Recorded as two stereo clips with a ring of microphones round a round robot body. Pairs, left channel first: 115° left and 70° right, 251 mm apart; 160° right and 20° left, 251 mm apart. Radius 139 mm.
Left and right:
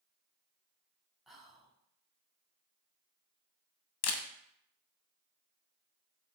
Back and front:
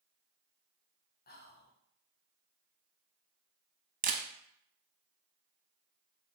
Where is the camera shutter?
80° left, 0.5 m.